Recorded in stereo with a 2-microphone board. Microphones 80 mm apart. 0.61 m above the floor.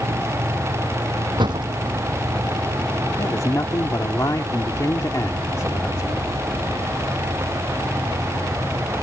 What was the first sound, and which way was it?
A door slam, 70° right (ahead or behind).